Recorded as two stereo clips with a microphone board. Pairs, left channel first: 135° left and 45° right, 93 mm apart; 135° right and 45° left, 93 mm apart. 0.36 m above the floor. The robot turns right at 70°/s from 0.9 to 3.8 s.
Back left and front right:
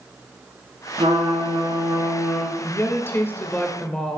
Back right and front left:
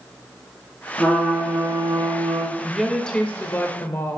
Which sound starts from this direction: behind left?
A woman speaking, at 2.6 s.